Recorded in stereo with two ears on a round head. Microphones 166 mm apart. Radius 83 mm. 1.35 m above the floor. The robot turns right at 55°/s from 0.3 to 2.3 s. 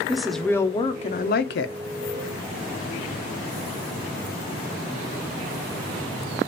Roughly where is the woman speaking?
Ahead.